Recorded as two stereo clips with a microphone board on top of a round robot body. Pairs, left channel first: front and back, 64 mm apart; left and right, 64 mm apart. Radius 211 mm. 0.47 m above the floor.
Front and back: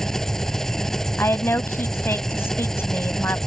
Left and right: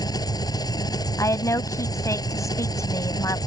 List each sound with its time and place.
0.0 s an engine running: 85° left
1.2 s a woman speaking: 55° left